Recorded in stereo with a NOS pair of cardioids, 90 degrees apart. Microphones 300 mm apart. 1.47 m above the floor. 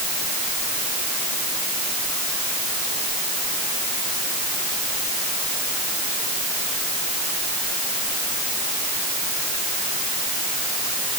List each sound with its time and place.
Only background noise.